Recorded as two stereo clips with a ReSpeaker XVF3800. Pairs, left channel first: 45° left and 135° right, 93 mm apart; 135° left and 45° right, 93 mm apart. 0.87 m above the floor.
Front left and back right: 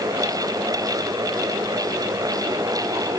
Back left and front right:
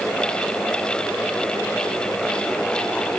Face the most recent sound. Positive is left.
No sound to turn to.